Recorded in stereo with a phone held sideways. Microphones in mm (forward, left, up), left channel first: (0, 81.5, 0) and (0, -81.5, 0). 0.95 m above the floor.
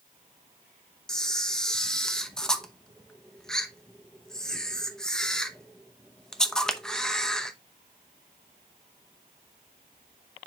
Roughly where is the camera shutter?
Centre.